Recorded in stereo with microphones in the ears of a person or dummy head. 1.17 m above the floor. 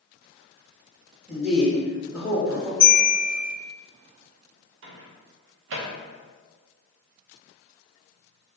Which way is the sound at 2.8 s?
25° right (ahead or behind).